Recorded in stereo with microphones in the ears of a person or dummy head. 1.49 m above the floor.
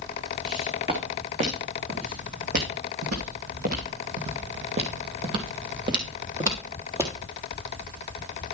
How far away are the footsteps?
About 4 m.